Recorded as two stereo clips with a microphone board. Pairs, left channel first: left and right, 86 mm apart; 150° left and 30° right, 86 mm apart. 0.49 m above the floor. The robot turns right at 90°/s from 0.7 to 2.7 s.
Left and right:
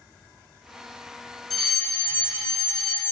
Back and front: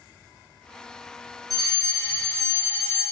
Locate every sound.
1.5 s a fire alarm: 5° left, 3.5 m; by 3.0 s 110° left, 3.5 m